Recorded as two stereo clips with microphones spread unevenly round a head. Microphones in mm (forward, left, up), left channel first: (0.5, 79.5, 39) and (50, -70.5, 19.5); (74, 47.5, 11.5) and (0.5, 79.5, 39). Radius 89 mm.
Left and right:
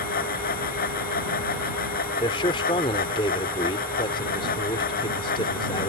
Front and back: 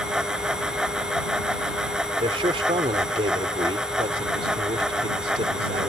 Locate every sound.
0.0 s a fan: 75° left
2.2 s a man speaking: 170° left